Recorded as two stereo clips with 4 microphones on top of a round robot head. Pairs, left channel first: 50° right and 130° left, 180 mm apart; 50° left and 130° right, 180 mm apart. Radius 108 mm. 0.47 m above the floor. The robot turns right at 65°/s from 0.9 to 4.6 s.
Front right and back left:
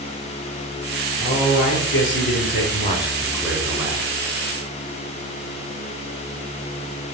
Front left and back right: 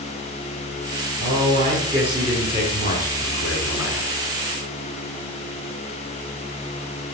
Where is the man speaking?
105° right, 6 m; by 4.1 s 85° left, 6 m.